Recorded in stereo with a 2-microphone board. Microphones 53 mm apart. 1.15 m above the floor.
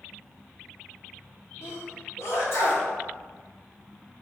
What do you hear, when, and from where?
1.6 s a sneeze: 60° left (ahead or behind), 1.5 m